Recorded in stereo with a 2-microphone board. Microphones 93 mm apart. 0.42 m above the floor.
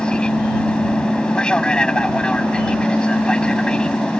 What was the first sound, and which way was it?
An aircraft, 10° left (ahead or behind).